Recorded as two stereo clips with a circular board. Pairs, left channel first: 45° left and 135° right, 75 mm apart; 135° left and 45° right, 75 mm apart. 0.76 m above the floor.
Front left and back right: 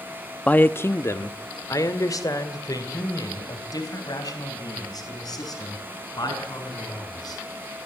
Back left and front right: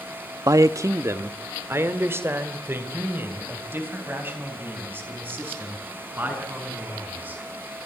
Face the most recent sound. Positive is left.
turn(degrees=20)